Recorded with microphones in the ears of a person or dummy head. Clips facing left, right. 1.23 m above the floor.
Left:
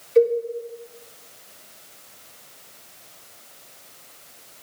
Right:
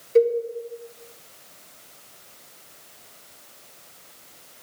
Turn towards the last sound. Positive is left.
turn(degrees=-70)  # may be behind; listen again after turning